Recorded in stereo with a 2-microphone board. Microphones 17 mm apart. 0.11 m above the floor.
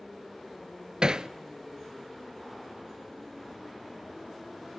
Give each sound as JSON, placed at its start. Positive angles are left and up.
{"t": 1.0, "sound": "hammering", "side_deg": -50, "distance_m": 0.6}